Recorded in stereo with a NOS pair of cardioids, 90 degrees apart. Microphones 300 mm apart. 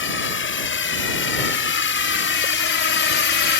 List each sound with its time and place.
0.0 s a drone: 40° left; by 3.6 s 45° left